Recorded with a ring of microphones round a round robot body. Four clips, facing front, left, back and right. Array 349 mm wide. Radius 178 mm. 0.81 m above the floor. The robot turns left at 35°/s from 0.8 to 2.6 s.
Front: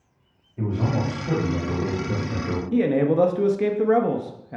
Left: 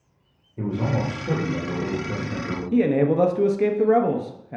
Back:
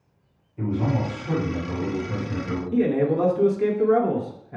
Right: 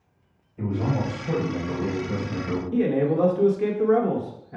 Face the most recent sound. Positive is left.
turn(degrees=50)